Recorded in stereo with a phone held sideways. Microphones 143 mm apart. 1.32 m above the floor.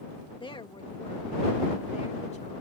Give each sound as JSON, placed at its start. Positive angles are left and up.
{"t": 0.4, "sound": "a woman speaking", "side_deg": 35}